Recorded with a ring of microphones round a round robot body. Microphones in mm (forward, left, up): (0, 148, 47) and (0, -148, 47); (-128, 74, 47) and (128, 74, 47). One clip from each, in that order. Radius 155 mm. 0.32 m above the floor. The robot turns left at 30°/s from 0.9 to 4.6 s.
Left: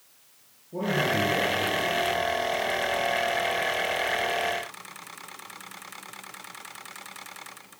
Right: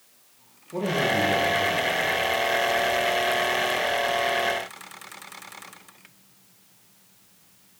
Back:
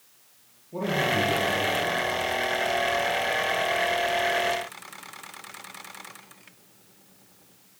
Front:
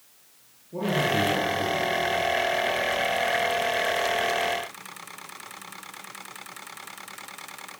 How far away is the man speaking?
About 8 m.